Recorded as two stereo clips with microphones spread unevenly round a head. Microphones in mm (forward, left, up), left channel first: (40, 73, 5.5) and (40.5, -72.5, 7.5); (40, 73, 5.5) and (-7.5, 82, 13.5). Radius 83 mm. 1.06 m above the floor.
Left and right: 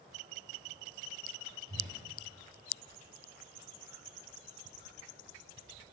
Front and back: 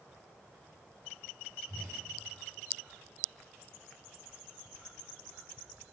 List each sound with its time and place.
1.7 s a whoosh: 145° right, 3 m